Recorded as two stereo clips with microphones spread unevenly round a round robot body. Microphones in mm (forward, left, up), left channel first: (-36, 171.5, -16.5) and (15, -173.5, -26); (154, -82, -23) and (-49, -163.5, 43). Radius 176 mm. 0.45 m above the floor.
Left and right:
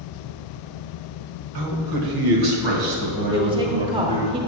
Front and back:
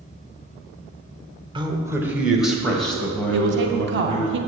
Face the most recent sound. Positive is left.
turn(degrees=-145)